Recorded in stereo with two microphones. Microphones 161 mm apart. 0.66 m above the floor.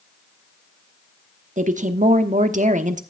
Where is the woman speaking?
50° right (ahead or behind), 1.0 m.